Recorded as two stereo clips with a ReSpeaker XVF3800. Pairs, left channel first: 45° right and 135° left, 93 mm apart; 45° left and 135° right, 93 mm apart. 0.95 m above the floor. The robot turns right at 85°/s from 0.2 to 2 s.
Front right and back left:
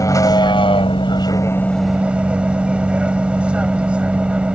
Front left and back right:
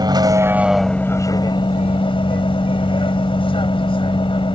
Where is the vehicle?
95° right; by 4.6 s 60° left.